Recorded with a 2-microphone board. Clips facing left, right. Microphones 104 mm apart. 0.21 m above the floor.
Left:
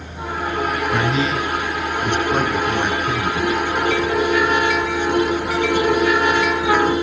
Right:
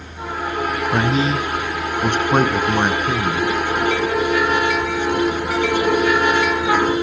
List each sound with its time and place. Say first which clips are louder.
0.9 s a man speaking: right 3 dB; 25° right (ahead or behind), 1.5 m; by 3.5 s 50° right (ahead or behind), 3.5 m